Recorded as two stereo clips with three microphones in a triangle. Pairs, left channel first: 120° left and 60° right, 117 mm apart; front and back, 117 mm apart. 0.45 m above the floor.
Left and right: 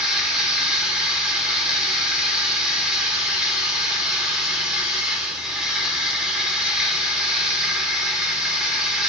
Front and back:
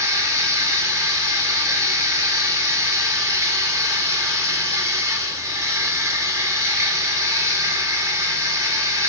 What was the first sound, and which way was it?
Running water, 140° right.